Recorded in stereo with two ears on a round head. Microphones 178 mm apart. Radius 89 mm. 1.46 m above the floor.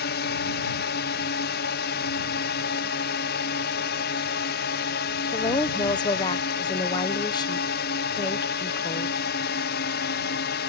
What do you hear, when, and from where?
0.0 s a drone: 55° left (ahead or behind)
5.3 s a woman speaking: 20° left (ahead or behind)